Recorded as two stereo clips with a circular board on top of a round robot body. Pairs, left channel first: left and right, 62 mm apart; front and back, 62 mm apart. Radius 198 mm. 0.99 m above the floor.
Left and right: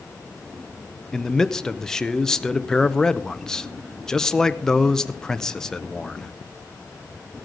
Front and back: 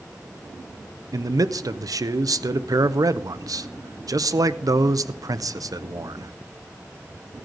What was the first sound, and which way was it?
A man speaking, 170° left.